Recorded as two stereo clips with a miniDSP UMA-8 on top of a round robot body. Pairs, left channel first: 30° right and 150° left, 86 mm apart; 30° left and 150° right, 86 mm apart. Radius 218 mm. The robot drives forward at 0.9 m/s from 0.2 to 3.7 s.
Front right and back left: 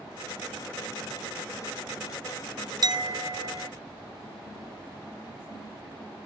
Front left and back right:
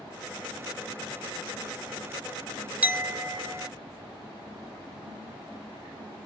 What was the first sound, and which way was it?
A clink, 140° left.